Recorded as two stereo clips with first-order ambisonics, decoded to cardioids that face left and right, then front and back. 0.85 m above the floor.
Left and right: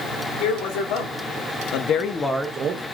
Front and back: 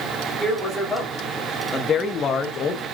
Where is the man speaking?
90° left, 3 m; by 2.9 s 55° right, 1.1 m.